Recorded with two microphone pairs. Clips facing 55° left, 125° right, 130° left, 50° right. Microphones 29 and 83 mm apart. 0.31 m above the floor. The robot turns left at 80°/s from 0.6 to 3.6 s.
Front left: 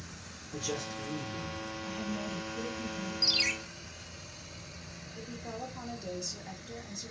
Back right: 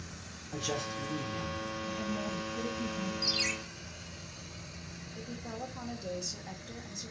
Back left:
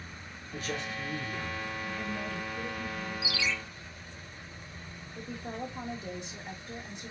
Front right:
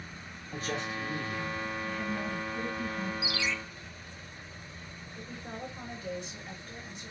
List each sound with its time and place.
0.5 s a man speaking: 95° right, 2.5 m; by 1.7 s straight behind, 2.5 m
1.9 s a woman speaking: 50° left, 1.8 m; by 3.1 s 50° right, 1.8 m
3.2 s a ringtone: 15° left, 0.8 m; by 3.5 s 10° right, 0.8 m
5.2 s a woman speaking: 155° left, 1.1 m